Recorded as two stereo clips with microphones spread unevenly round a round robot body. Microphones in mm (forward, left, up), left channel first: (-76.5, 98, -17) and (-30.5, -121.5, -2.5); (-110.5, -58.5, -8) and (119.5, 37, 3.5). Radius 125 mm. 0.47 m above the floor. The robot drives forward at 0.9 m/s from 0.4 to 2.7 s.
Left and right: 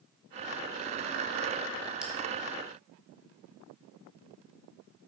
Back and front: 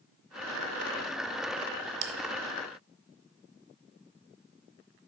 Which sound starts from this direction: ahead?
A bell, at 2.0 s.